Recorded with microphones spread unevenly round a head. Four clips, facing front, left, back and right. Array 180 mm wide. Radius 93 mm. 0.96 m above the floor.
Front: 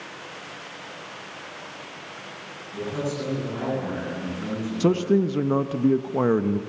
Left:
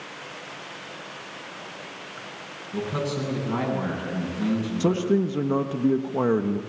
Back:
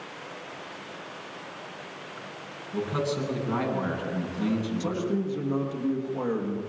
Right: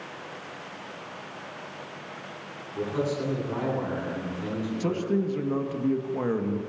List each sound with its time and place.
2.7 s a man speaking: 115° left, 9 m
4.8 s a man speaking: 30° left, 1.3 m